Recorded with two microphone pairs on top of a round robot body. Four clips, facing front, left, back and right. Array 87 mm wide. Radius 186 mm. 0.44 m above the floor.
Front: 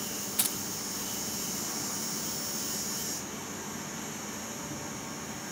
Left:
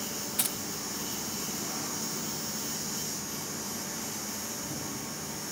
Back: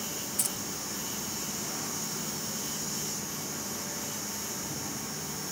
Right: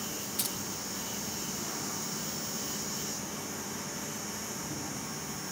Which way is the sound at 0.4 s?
55° left.